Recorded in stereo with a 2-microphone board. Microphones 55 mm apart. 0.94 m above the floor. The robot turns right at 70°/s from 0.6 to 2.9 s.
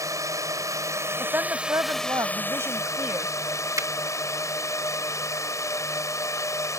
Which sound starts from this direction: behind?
A woman speaking, at 1.2 s.